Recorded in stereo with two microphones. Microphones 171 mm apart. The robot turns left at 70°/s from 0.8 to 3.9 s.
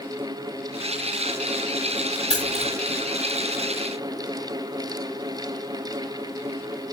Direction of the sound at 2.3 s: 40° left (ahead or behind).